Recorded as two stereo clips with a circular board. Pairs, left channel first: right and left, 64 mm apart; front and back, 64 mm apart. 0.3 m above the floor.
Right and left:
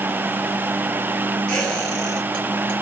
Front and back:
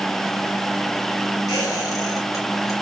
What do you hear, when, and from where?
1.5 s a squeak: 15° right, 1.6 m